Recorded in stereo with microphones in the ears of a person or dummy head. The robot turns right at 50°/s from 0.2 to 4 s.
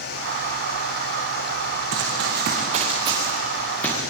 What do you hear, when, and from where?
1.9 s running footsteps: 80° right, 5.5 m; by 4.0 s 20° left (ahead or behind), 9 m